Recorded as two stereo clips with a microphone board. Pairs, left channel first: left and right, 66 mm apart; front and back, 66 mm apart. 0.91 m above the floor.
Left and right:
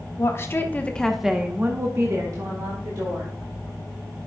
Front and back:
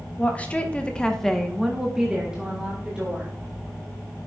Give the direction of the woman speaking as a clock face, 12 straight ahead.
10 o'clock.